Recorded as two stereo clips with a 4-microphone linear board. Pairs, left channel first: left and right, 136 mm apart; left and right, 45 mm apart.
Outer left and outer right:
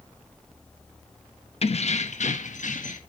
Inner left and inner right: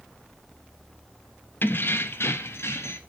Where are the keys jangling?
45° left (ahead or behind), 0.7 m; by 3.0 s 70° left (ahead or behind), 1.4 m.